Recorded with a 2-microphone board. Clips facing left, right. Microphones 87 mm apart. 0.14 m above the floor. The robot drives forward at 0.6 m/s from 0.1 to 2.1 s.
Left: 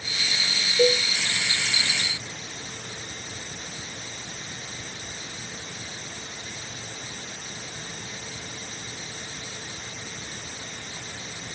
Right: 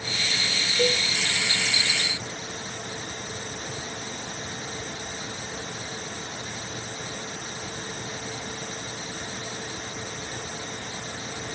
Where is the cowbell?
15° left (ahead or behind).